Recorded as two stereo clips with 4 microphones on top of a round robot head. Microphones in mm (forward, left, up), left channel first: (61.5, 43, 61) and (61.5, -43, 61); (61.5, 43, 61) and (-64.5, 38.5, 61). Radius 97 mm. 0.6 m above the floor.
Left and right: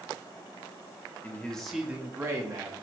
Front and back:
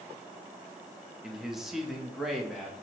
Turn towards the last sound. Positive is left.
turn(degrees=-90)